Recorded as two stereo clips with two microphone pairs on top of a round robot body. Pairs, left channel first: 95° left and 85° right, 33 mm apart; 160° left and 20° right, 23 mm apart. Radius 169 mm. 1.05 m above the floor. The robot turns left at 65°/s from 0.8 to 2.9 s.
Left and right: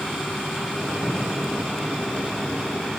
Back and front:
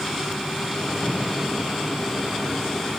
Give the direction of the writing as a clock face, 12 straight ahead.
7 o'clock.